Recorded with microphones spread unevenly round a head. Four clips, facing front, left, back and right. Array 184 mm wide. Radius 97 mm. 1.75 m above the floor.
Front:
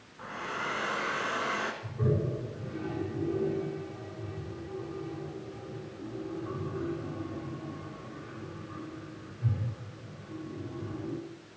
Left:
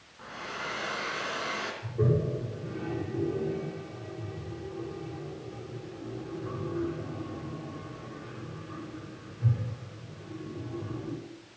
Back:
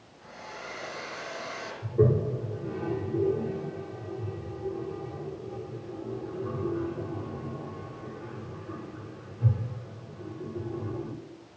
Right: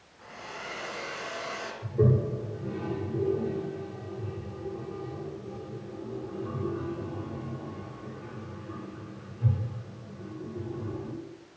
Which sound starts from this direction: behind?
A toilet flushing, at 1.8 s.